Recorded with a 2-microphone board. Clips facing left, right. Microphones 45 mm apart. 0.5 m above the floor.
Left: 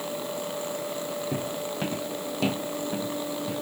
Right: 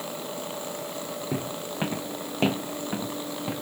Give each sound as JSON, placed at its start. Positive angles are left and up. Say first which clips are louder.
{"t": 1.3, "sound": "footsteps", "louder": "left 1 dB", "side_deg": -15, "distance_m": 1.7}